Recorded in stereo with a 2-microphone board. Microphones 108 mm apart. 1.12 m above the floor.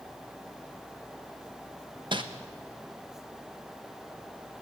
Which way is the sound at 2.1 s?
45° right (ahead or behind).